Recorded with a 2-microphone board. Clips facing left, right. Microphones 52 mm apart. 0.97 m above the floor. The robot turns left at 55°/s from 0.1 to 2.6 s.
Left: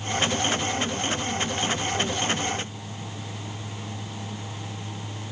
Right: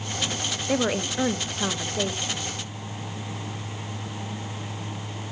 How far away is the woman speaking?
About 0.7 m.